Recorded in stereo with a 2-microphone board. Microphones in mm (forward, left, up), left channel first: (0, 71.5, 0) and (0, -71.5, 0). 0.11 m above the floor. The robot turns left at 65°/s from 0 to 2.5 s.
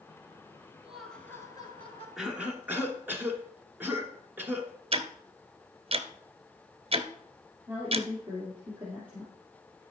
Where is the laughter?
170° right, 1.6 m; by 2.1 s 110° left, 1.6 m.